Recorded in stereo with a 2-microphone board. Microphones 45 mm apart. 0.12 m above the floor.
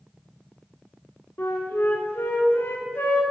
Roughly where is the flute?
Left.